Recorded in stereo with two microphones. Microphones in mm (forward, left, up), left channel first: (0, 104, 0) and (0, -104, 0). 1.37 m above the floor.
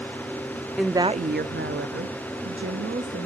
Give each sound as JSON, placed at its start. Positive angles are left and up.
{"t": 0.8, "sound": "a woman speaking", "side_deg": 0, "distance_m": 0.5}